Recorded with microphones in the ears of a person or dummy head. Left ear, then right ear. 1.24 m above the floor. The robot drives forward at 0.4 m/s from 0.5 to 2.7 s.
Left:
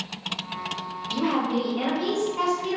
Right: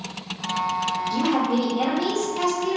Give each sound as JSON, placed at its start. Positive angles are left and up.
{"t": 1.1, "sound": "a woman speaking", "side_deg": 60, "distance_m": 1.0}